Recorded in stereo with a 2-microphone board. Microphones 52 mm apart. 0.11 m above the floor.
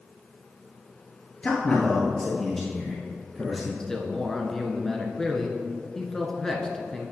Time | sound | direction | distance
1.4 | a man speaking | 20° left (ahead or behind) | 1.6 m
3.8 | a man speaking | 10° left (ahead or behind) | 1.1 m